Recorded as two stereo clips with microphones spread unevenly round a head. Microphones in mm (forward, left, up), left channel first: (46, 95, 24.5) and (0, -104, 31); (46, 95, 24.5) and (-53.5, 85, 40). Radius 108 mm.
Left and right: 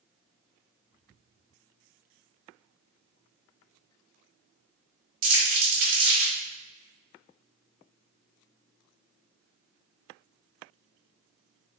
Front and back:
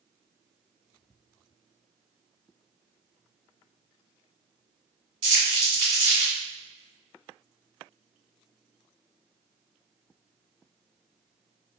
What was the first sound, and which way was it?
Crumpling, 125° right.